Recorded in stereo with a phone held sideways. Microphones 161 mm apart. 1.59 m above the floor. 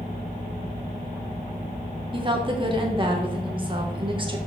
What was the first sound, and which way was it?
A woman speaking, 30° right (ahead or behind).